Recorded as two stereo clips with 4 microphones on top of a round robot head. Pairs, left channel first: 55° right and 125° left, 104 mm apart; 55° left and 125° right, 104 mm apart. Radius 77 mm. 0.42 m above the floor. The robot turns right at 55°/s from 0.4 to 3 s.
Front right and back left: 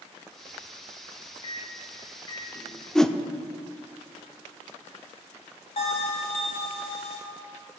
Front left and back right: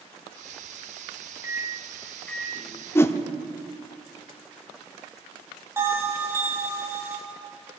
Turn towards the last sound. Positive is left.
turn(degrees=-65)